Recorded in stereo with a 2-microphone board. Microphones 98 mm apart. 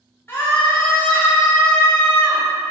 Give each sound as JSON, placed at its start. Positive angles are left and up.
{"t": 0.3, "sound": "a scream", "side_deg": 25, "distance_m": 1.0}